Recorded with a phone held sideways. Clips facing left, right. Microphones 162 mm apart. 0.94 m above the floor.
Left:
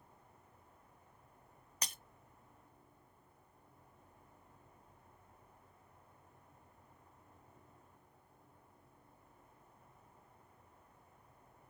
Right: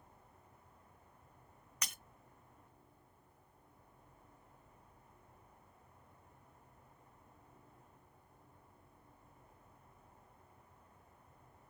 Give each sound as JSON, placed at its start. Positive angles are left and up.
{"t": 1.8, "sound": "breaking glass", "side_deg": 30, "distance_m": 0.8}